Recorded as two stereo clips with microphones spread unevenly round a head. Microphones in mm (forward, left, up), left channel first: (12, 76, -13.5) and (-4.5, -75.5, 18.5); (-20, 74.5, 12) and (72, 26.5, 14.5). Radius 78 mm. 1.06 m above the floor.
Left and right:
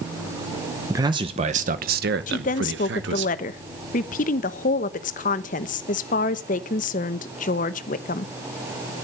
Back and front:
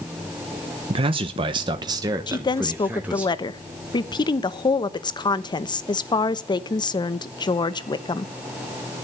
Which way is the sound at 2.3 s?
110° left.